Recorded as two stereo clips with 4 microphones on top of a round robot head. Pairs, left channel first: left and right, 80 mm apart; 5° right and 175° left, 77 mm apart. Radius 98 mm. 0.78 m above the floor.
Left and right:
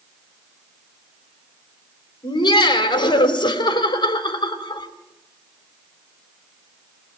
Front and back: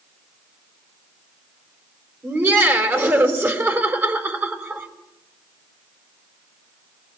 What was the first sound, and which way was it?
Laughter, 115° left.